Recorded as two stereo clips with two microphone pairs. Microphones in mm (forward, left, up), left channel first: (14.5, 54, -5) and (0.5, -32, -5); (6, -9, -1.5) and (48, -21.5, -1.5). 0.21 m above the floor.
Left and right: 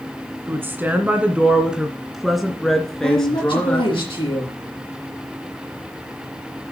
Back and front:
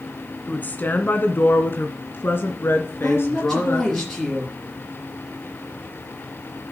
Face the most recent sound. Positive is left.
turn(degrees=80)